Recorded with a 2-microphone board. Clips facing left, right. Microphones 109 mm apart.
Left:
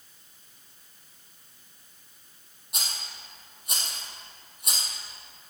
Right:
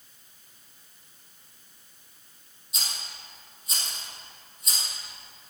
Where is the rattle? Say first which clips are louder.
Left 1 dB; 65° left (ahead or behind), 3 m.